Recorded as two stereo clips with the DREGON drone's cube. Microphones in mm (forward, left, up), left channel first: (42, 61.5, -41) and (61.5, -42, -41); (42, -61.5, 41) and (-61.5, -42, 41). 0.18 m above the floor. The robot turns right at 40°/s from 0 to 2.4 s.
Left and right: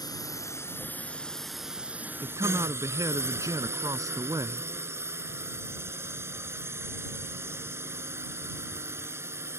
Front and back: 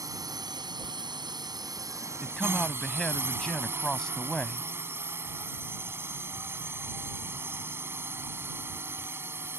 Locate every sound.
0.0 s a drone: 130° left; by 9.6 s 135° right
2.2 s a man speaking: 95° right; by 4.7 s 90° right